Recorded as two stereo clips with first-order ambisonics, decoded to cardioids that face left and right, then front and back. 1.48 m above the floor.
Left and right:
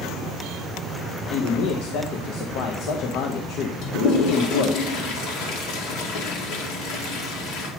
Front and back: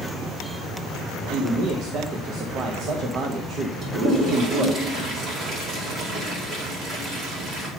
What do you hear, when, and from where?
1.3 s a man speaking: 125° left, 0.8 m
3.8 s a toilet flushing: 125° left, 2.0 m